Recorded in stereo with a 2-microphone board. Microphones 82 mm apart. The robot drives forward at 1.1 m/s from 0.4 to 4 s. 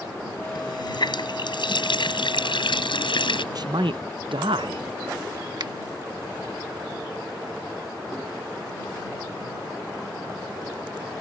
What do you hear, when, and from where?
0.6 s a running tap: 60° left (ahead or behind); by 3.5 s 85° left
3.5 s a man speaking: 55° right (ahead or behind); by 4.8 s 90° right
5.6 s a finger snap: 65° right (ahead or behind)